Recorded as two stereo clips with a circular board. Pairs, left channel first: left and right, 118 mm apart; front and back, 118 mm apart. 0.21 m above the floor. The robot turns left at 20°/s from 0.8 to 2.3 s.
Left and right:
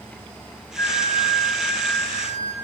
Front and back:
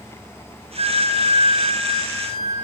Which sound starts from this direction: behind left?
A flute, at 0.8 s.